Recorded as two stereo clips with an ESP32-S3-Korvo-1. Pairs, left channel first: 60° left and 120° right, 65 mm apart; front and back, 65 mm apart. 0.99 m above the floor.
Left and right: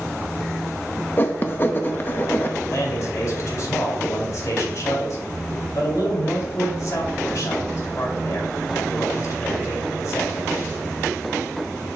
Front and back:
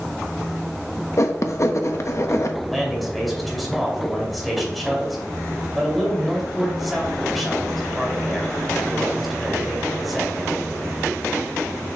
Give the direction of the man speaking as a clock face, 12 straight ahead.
9 o'clock.